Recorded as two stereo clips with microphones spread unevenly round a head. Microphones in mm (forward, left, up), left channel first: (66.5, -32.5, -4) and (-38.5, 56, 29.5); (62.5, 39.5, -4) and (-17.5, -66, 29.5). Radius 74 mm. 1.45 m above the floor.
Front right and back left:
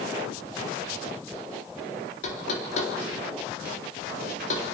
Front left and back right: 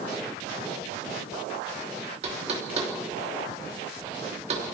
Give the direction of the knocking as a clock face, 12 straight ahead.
3 o'clock.